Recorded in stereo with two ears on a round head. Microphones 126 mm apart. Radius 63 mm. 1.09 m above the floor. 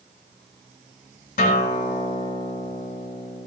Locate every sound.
1.4 s a guitar: 65° left (ahead or behind), 4 m